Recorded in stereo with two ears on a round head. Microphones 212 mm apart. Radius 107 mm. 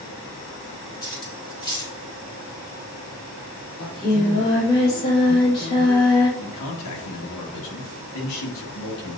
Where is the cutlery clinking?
20° left (ahead or behind), 1.3 m.